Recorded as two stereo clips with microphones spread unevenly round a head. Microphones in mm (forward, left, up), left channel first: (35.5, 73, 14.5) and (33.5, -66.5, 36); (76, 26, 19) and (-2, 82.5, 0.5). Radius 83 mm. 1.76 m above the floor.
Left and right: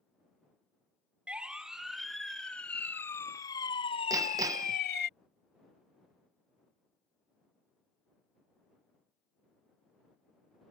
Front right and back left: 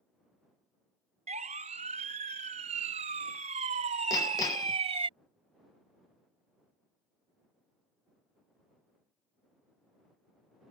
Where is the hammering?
45° right.